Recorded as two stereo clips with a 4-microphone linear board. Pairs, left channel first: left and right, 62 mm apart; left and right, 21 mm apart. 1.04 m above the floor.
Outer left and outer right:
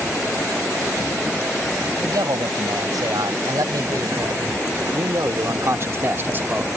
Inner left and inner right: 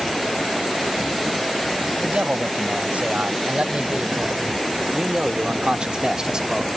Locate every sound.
2.0 s a man speaking: 85° right; by 6.7 s 25° right (ahead or behind)